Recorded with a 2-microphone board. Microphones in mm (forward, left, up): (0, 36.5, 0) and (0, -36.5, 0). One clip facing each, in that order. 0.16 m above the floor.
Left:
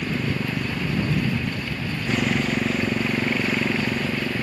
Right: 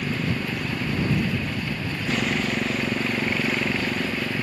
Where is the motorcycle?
Centre (ahead or behind).